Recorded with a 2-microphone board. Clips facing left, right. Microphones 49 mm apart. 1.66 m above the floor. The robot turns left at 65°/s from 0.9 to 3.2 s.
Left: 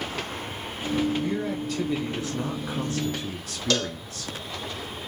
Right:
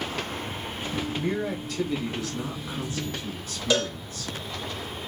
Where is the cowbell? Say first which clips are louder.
Right 1 dB; 15° right (ahead or behind), 0.6 m.